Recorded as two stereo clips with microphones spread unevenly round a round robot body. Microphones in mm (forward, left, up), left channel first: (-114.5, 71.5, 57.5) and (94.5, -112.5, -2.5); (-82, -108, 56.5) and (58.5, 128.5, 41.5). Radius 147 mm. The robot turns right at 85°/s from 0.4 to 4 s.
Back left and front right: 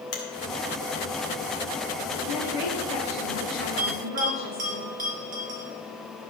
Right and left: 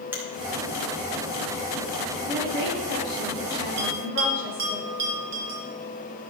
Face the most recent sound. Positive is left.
turn(degrees=25)